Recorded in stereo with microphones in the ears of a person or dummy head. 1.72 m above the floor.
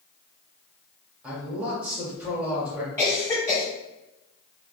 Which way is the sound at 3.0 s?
15° left (ahead or behind).